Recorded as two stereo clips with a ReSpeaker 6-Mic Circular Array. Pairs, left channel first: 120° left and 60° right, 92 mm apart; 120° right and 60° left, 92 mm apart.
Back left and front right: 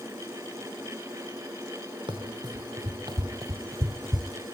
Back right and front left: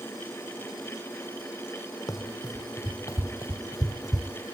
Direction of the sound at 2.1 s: 75° right.